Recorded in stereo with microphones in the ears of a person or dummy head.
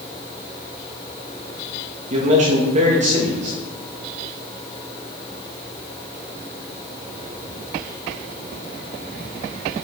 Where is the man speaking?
40° right (ahead or behind), 2 m.